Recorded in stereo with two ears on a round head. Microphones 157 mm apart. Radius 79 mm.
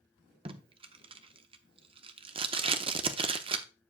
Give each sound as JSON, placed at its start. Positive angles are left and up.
{"t": 0.5, "sound": "tape being pulled", "side_deg": -30, "distance_m": 0.7}